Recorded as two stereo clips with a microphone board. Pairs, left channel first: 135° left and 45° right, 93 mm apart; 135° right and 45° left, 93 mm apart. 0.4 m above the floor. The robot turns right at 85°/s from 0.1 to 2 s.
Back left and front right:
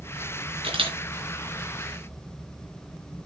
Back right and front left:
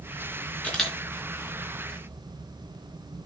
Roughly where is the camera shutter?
Ahead right.